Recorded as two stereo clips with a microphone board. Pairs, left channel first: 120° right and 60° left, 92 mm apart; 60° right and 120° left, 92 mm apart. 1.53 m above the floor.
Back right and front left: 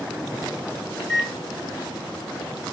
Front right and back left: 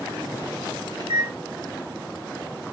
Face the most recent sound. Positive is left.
turn(degrees=150)